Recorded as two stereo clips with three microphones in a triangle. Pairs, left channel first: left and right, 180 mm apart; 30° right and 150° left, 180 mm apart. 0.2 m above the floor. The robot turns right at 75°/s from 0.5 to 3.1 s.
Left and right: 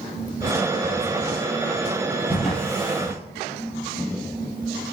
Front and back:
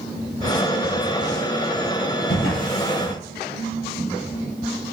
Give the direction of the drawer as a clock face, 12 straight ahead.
12 o'clock.